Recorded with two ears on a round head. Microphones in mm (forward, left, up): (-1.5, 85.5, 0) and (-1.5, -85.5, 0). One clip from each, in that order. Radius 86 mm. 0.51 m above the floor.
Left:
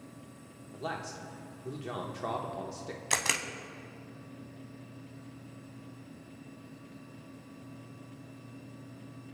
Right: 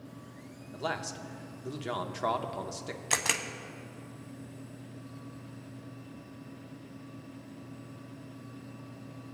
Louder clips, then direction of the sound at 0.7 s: Right 3 dB; 30° right (ahead or behind).